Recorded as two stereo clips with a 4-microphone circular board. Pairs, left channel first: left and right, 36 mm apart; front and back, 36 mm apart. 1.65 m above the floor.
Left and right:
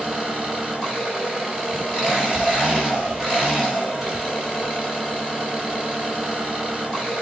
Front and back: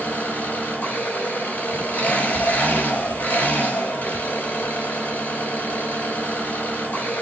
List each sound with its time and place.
0.0 s an engine running: 5° right, 4.5 m